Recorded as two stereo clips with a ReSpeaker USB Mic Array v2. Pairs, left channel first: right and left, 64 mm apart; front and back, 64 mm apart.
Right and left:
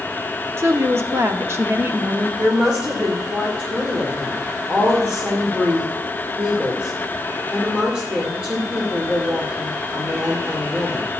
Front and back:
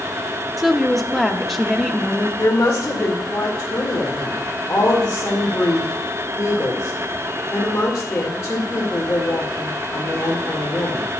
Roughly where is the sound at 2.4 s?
Ahead left.